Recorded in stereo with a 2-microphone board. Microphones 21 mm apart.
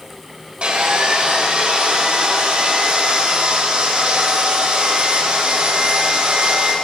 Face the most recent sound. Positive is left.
turn(degrees=-70)  # may be behind; listen again after turning